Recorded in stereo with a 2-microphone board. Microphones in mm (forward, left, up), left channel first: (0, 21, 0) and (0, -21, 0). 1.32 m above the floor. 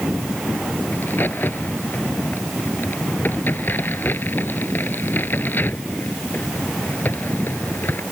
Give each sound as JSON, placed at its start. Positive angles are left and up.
{"t": 0.9, "sound": "a crack", "side_deg": 50}